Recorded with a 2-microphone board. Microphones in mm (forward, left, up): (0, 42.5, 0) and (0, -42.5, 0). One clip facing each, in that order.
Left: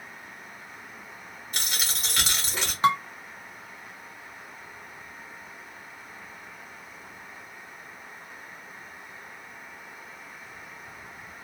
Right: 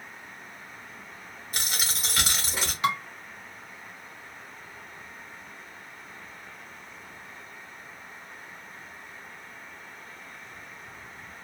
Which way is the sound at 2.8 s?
35° left (ahead or behind).